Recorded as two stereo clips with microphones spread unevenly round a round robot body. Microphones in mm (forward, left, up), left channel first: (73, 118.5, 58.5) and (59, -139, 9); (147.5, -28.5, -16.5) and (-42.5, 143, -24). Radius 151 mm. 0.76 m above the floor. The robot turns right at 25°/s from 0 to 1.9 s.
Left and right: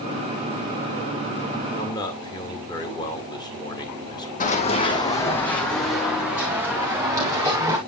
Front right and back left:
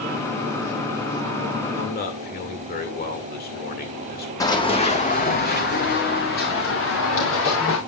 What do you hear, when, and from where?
1.8 s a man speaking: 5° left, 2.5 m; by 4.3 s 10° left, 2.5 m
4.4 s running footsteps: 35° left, 2 m; by 7.8 s 15° right, 4.5 m